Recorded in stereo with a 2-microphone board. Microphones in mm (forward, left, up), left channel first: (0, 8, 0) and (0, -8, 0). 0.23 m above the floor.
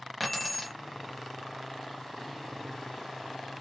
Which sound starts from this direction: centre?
Keys jangling, at 0.2 s.